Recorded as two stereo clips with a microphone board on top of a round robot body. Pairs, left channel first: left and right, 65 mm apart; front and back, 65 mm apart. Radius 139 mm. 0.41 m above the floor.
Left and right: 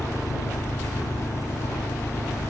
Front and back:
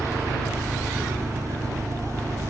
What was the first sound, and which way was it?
An engine running, 135° left.